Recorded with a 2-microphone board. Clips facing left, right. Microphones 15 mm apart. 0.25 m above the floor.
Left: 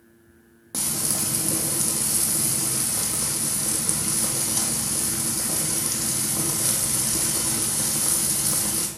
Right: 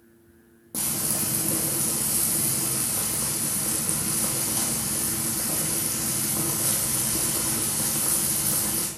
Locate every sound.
0.7 s frying: 35° left (ahead or behind), 1.8 m